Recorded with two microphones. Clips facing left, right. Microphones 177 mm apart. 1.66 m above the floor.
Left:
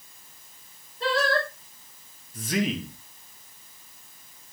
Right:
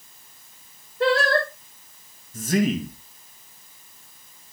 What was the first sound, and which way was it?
Singing, 85° right.